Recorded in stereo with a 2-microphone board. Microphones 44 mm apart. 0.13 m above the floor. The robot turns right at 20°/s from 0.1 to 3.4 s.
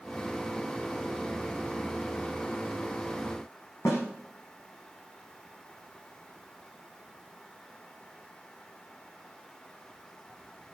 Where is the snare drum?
80° left, 7.5 m.